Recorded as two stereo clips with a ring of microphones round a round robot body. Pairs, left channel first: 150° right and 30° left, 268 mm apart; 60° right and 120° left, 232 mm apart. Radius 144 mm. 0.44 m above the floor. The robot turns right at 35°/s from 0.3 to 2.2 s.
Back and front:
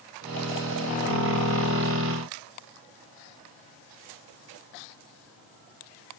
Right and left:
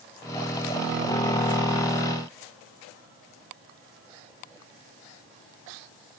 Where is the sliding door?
No sliding door in this recording.